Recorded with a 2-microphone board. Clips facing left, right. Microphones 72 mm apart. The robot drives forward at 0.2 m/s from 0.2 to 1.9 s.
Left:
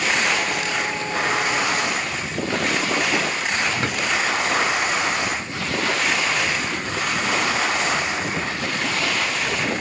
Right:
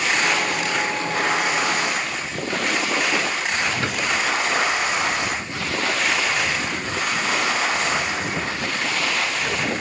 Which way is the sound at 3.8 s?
25° left (ahead or behind).